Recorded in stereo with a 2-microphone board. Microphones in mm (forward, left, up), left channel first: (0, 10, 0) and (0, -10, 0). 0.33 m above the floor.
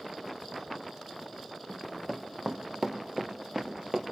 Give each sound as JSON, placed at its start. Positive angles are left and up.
{"t": 1.7, "sound": "running footsteps", "side_deg": -10, "distance_m": 1.3}